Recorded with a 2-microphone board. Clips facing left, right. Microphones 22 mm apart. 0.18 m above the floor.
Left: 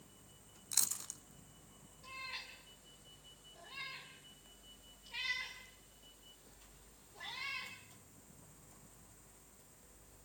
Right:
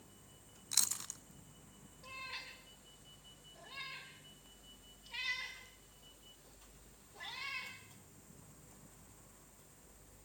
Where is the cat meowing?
15° right (ahead or behind), 6.5 m.